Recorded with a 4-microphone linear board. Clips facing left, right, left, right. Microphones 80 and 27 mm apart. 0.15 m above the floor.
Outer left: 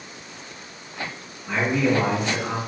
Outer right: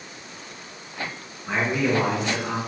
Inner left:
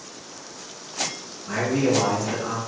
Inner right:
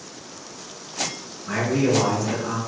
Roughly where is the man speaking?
Right.